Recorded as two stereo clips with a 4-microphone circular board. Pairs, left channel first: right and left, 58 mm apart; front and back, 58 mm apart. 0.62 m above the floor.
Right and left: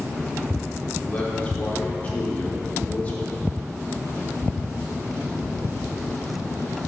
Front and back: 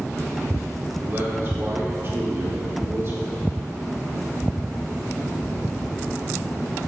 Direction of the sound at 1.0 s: 150° right.